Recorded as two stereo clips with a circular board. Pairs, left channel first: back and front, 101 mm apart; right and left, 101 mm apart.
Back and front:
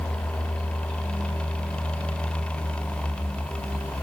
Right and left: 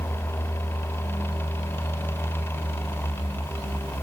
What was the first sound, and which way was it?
Only background noise.